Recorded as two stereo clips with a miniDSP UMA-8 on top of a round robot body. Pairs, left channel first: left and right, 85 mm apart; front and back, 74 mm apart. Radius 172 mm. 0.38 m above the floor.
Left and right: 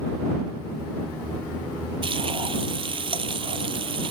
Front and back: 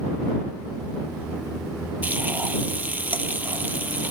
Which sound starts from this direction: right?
Frying, at 2.0 s.